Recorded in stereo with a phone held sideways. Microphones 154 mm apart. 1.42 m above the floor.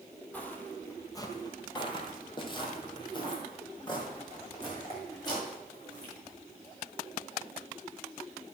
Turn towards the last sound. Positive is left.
turn(degrees=25)  # may be behind; listen again after turning